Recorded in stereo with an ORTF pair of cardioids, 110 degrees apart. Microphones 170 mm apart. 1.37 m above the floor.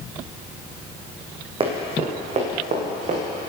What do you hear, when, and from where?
1.6 s running footsteps: 35° right, 4.5 m; by 3.2 s 45° right, 6.5 m